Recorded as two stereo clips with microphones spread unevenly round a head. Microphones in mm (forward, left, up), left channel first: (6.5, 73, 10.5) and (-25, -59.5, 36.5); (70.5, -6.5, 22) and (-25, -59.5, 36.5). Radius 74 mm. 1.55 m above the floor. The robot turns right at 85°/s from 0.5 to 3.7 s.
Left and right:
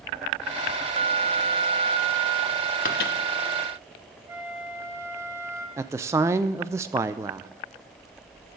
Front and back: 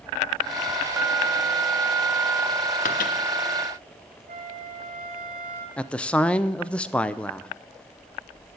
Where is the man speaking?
55° right, 0.5 m.